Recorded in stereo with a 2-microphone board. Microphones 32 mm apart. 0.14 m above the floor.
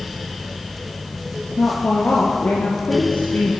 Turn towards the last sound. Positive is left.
turn(degrees=55)  # may be behind; listen again after turning